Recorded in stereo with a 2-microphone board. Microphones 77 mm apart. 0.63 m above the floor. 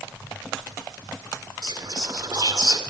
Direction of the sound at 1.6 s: 65° right (ahead or behind).